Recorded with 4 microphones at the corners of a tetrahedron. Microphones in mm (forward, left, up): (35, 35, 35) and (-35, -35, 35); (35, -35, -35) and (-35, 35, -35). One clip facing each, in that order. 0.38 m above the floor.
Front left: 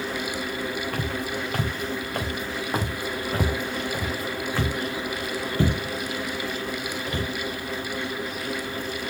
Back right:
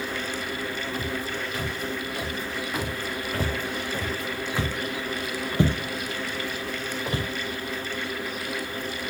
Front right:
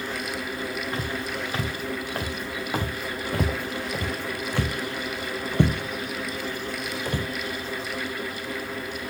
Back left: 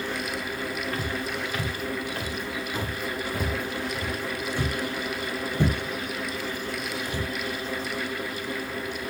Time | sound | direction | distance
0.9 | footsteps | 20° left | 2.5 m